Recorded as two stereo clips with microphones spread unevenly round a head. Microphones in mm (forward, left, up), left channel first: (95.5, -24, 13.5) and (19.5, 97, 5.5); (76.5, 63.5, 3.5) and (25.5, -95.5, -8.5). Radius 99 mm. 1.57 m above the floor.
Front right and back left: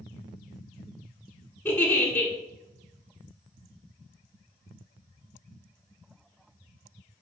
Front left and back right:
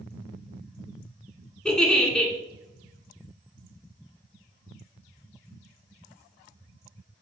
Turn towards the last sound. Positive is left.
turn(degrees=0)